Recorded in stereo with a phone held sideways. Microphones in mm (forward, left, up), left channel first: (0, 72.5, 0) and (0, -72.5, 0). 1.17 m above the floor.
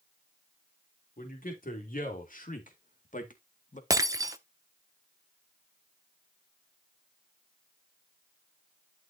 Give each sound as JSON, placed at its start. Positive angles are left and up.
{"t": 1.2, "sound": "a man speaking", "side_deg": 75, "distance_m": 3.0}
{"t": 3.9, "sound": "breaking glass", "side_deg": -25, "distance_m": 0.8}